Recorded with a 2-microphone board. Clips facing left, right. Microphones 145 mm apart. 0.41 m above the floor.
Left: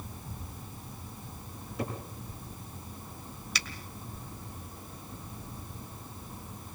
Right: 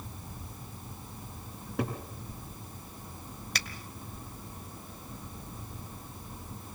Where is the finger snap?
55° right (ahead or behind), 1.8 m.